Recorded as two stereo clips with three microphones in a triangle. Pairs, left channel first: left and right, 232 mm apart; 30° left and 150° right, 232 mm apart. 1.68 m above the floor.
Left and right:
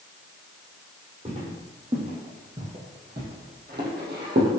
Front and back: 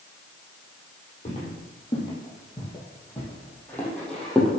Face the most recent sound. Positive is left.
turn(degrees=-60)